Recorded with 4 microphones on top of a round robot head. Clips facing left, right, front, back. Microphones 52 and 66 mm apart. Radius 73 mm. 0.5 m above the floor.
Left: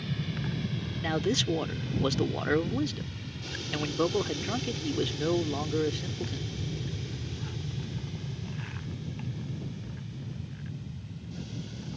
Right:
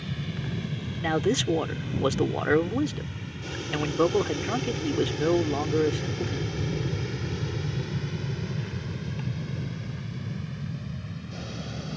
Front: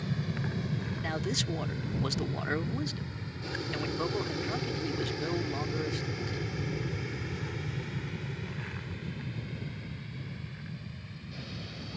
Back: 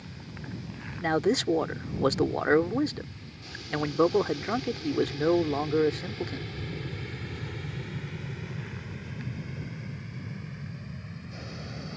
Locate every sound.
0.0 s an aircraft: 5° right; by 12.0 s 115° right
1.0 s a man speaking: 155° right